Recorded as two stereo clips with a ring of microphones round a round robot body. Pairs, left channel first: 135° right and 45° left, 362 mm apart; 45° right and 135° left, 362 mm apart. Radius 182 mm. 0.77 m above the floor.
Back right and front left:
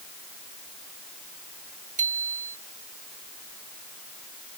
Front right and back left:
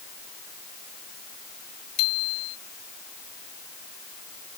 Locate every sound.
2.0 s a bicycle bell: 25° right